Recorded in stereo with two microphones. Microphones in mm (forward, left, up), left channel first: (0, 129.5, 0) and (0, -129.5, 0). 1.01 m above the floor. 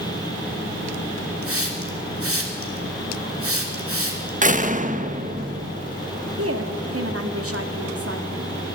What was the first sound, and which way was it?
A hiss, 60° right (ahead or behind).